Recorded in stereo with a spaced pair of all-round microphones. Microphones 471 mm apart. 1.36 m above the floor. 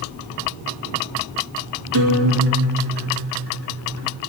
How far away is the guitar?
About 3 m.